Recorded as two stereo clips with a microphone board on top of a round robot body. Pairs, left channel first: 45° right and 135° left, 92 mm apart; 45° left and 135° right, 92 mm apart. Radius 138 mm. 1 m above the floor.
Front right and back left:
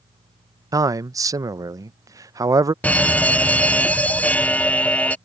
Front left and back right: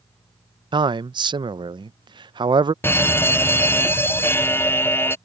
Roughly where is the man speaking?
Behind.